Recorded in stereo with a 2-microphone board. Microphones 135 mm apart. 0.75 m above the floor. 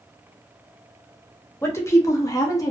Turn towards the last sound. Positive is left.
turn(degrees=25)  # may be behind; listen again after turning